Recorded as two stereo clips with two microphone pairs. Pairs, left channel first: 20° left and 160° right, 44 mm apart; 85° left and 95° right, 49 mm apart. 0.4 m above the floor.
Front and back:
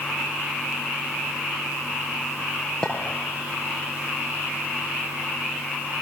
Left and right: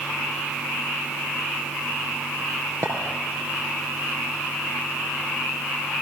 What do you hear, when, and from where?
2.8 s a clink: 55° right, 4 m